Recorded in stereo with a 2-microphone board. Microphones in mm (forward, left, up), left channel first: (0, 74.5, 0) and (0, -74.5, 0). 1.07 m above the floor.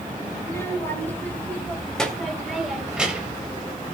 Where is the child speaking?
20° left (ahead or behind), 3.5 m; by 3.5 s 10° right (ahead or behind), 3.5 m.